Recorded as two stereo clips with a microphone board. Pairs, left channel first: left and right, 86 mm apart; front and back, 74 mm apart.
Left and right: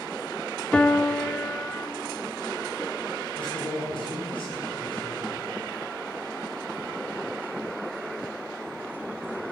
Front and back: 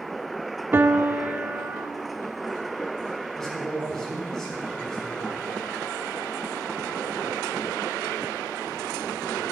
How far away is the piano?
About 0.5 m.